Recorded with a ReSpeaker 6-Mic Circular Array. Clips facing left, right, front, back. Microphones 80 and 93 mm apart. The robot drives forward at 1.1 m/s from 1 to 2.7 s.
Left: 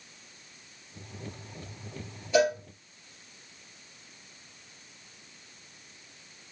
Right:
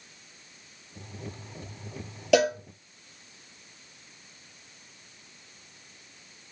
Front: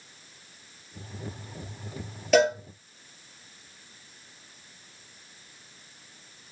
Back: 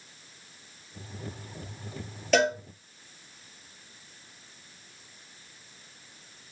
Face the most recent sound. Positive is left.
turn(degrees=-90)